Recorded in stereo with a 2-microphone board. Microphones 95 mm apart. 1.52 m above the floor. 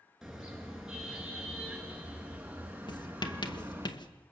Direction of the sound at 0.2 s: 5° right (ahead or behind).